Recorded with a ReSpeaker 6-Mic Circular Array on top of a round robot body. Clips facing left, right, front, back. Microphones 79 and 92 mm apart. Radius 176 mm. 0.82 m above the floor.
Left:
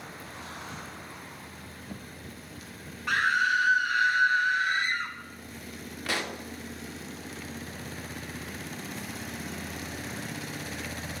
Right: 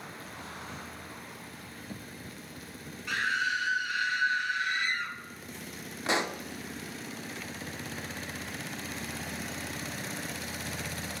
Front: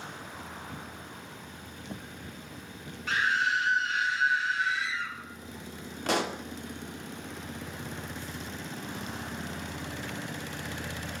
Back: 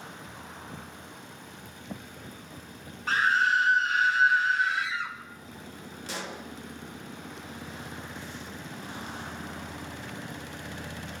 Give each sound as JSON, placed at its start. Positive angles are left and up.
{"t": 3.1, "sound": "a scream", "azimuth_deg": 130, "distance_m": 4.0}
{"t": 6.1, "sound": "a pop", "azimuth_deg": -25, "distance_m": 2.5}